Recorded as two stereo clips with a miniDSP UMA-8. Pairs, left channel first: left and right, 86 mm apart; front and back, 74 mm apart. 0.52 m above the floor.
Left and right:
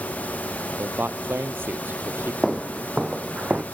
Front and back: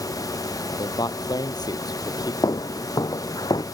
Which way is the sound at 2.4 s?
5° right.